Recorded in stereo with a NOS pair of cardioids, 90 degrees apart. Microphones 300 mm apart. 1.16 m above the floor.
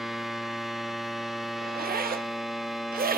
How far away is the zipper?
About 0.9 m.